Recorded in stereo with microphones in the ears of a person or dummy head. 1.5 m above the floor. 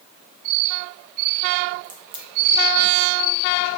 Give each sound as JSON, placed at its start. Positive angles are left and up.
{"t": 1.8, "sound": "a crack", "side_deg": -30, "distance_m": 0.5}